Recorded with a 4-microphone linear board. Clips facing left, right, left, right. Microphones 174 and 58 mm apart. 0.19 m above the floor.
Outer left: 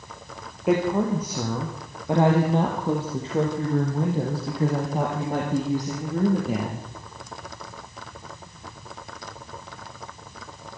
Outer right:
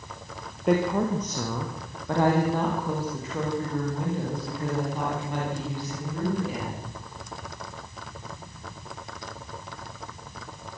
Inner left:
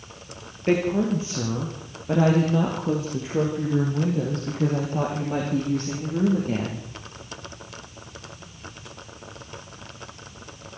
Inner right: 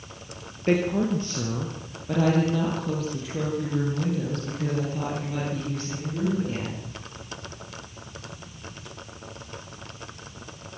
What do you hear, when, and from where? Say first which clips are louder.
0.7 s a woman speaking: outer left 2 dB, inner left 1 dB; 5° left (ahead or behind), 3.5 m; by 6.9 s 45° left (ahead or behind), 7 m